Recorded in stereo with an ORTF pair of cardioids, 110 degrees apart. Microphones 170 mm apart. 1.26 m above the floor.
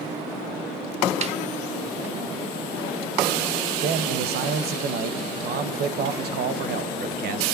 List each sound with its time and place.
1.2 s a snare drum: 40° right, 0.9 m
3.8 s a man speaking: 65° right, 0.9 m